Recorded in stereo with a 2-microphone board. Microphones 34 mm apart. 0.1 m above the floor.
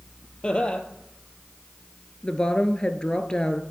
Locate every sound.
0.4 s laughter: 25° left (ahead or behind), 2 m
2.2 s a woman speaking: 25° left (ahead or behind), 1.3 m